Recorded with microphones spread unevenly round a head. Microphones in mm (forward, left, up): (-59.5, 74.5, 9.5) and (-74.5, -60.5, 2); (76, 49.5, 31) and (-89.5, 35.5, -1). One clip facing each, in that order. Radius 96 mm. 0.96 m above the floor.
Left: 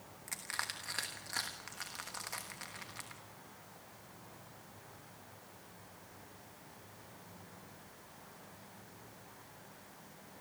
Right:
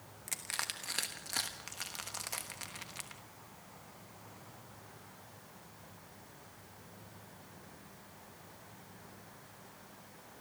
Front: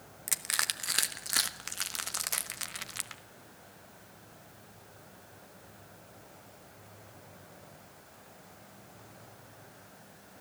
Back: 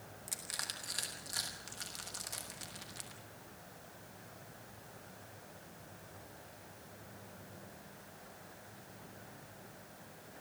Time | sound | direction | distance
0.3 | crushing | 25° right | 1.1 m